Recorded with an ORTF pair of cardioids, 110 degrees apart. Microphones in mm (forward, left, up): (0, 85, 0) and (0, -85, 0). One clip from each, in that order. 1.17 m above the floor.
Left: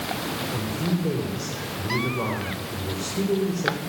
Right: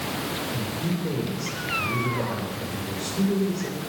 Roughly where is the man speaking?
Ahead left.